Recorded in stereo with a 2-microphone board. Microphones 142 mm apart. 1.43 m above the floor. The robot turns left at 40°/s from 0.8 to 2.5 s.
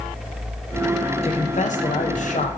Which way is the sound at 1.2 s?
125° left.